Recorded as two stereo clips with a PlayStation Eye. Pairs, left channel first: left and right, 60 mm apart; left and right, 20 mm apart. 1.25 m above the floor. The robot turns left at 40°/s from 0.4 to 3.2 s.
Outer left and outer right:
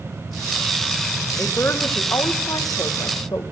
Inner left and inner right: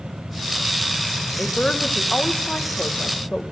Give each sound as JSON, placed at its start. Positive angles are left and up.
{"t": 1.4, "sound": "a woman speaking", "azimuth_deg": 150, "distance_m": 1.0}